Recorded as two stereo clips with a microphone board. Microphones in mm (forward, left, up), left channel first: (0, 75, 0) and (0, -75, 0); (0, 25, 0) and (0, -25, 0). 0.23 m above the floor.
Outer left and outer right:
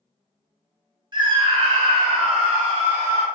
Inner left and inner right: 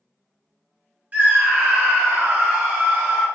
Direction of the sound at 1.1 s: 30° right (ahead or behind).